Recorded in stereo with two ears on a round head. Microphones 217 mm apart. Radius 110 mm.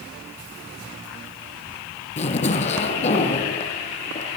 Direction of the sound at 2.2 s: 30° left (ahead or behind).